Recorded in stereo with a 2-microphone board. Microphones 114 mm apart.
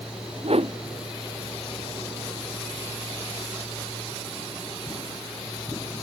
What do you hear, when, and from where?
0.4 s a whoosh: 60° right (ahead or behind)